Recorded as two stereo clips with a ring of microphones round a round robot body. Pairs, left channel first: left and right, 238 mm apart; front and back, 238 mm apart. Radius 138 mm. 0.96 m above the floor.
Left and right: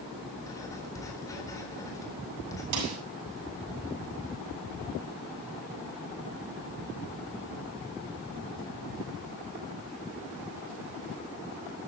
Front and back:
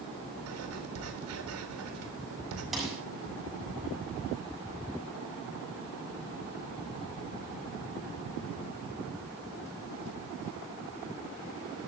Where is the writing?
170° left, 4 m.